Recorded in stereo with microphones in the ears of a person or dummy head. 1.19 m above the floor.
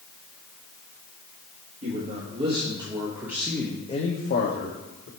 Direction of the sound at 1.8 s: 40° right (ahead or behind).